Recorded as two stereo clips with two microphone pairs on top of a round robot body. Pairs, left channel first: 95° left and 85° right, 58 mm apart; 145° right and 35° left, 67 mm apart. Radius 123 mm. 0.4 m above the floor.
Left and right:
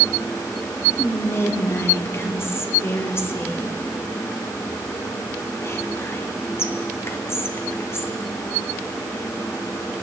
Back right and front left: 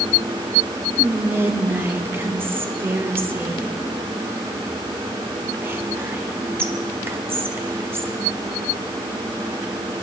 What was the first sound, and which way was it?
Whispering, 70° left.